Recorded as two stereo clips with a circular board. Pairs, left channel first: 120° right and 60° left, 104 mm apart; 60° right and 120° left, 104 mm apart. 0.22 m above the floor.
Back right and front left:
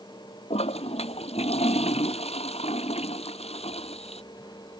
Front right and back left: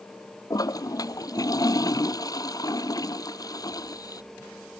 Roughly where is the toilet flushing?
Behind right.